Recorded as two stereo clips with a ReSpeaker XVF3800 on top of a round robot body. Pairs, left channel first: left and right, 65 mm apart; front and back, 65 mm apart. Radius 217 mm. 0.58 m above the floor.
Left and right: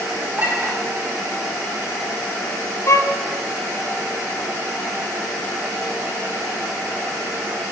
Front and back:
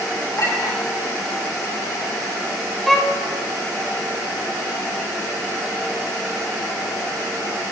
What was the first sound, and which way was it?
A clink, 30° right.